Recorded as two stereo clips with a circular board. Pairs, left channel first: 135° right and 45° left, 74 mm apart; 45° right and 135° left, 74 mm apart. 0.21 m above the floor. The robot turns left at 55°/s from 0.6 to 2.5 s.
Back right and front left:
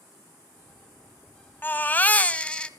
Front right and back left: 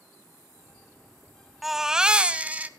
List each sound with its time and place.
1.6 s a baby crying: 140° right, 0.8 m; by 2.7 s 170° left, 0.8 m